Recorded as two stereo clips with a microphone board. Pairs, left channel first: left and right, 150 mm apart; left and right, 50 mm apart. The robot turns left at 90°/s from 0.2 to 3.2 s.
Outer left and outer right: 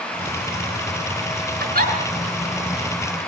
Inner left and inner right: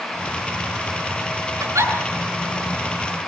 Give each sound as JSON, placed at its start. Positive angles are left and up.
{"t": 1.6, "sound": "a giggle", "side_deg": -85, "distance_m": 5.5}